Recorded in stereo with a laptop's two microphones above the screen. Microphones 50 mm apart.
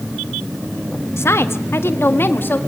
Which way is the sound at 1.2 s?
65° left (ahead or behind).